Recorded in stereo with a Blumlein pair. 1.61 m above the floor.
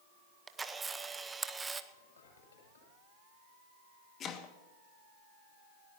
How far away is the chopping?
About 1.5 m.